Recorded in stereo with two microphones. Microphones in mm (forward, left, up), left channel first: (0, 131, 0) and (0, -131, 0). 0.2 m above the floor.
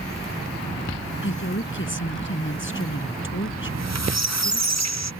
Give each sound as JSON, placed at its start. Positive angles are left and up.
{"t": 1.2, "sound": "a woman speaking", "side_deg": 50}
{"t": 3.6, "sound": "a squeak", "side_deg": -85}